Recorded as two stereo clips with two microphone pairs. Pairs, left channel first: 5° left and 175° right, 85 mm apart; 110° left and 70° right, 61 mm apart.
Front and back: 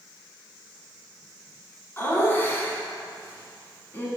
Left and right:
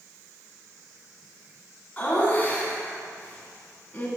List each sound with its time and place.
2.0 s laughter: 55° left, 1.7 m